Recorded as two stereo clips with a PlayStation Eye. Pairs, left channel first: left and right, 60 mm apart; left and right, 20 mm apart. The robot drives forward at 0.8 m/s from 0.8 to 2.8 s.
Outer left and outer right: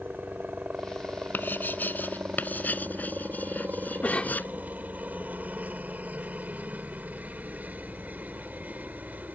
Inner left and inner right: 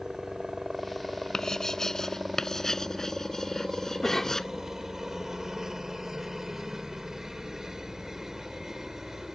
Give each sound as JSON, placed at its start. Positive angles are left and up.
{"t": 0.0, "sound": "a helicopter", "side_deg": -25}
{"t": 1.3, "sound": "writing", "side_deg": 30}
{"t": 4.0, "sound": "a cough", "side_deg": 20}